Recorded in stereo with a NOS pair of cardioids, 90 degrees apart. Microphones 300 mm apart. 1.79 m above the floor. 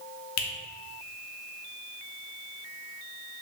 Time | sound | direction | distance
0.4 | a finger snap | 65° left | 1.0 m